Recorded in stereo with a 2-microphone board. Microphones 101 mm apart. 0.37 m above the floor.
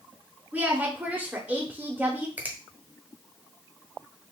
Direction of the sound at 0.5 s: 15° right (ahead or behind).